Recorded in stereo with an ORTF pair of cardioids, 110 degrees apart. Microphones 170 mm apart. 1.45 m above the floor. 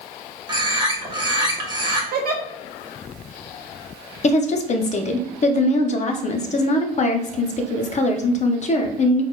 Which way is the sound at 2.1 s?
65° right.